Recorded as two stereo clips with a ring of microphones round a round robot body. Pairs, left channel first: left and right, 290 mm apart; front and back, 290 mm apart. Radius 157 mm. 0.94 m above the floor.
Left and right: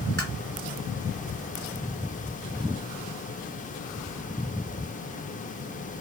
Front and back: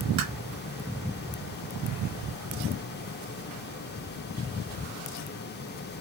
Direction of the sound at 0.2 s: 170° left.